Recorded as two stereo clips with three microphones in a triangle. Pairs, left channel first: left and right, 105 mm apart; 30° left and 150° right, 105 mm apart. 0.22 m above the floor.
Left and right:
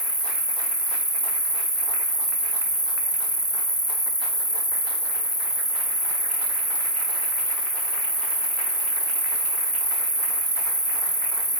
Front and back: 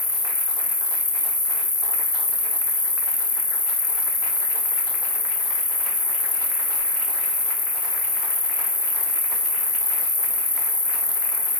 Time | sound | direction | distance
0.0 | an insect | 50° left | 0.9 m